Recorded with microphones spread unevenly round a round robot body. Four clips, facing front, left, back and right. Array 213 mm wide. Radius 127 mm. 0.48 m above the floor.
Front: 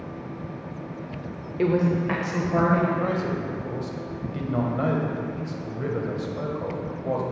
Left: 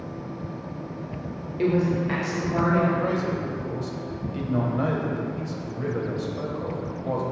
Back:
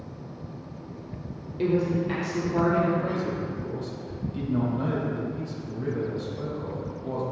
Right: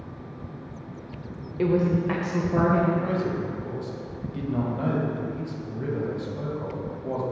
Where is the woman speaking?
Straight ahead, 1.2 m.